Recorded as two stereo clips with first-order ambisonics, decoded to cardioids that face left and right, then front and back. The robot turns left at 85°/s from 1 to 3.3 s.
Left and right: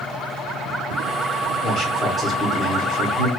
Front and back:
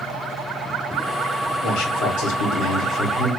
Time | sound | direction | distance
1.6 | a man speaking | 45° left | 1.3 m